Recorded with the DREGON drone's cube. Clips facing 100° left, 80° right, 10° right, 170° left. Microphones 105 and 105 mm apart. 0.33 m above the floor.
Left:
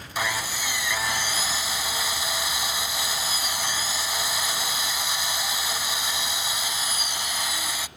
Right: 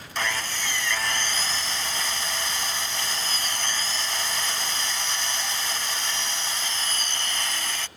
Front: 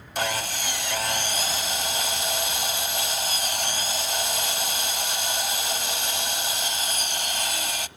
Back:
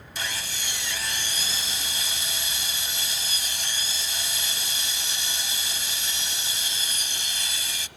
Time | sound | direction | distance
0.1 | sawing | 20° left | 1.0 m